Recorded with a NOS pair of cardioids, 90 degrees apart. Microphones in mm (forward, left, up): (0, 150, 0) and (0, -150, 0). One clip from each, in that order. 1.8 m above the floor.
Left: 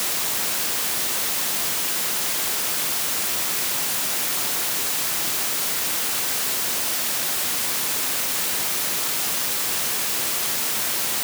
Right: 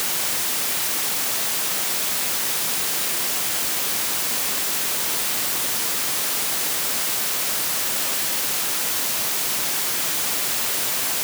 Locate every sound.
Only background noise.